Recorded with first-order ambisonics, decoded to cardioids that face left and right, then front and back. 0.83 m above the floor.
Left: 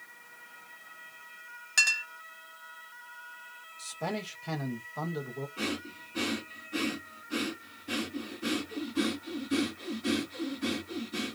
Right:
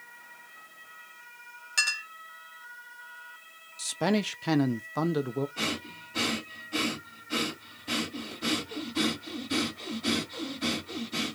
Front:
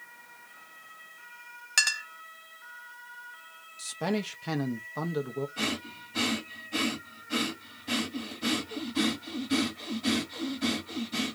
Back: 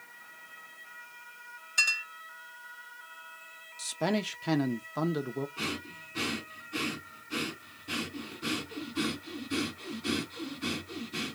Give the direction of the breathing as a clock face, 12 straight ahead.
1 o'clock.